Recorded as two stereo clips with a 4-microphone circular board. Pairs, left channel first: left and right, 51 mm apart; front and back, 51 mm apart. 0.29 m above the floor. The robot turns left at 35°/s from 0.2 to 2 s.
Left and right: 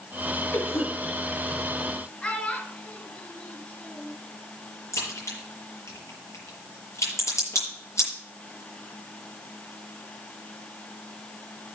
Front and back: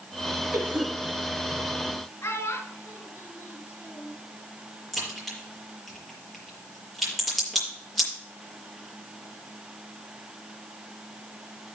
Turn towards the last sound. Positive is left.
turn(degrees=90)